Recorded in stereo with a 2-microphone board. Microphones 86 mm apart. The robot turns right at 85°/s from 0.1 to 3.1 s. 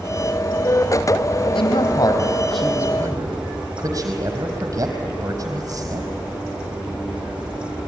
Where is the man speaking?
80° left, 4.5 m; by 6.1 s 40° right (ahead or behind), 4.5 m.